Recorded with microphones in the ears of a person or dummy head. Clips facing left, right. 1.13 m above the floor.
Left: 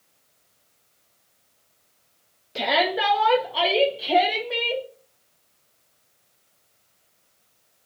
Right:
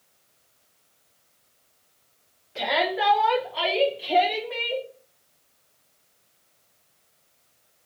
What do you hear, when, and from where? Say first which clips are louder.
2.5 s a shout: left 2 dB; 40° left (ahead or behind), 0.7 m; by 4.8 s 45° left (ahead or behind), 1.6 m